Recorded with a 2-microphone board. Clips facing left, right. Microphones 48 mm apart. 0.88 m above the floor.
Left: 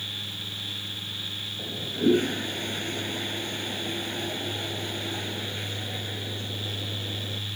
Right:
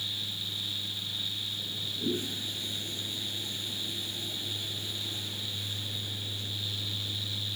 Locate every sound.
1.6 s a toilet flushing: 55° left (ahead or behind)